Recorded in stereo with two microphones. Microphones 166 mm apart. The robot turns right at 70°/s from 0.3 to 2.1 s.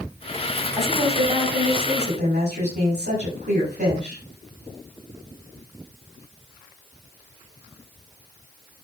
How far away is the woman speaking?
About 5.5 m.